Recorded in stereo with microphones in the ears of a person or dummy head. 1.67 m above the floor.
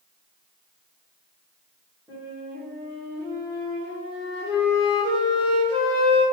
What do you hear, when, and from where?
2.1 s a flute: 5° right (ahead or behind), 1.4 m